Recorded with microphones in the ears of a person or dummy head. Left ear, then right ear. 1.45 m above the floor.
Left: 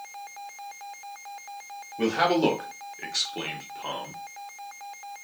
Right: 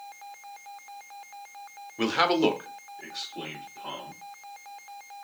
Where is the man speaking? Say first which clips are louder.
Left 1 dB; 50° right (ahead or behind), 0.9 m; by 4.2 s 65° left (ahead or behind), 1.6 m.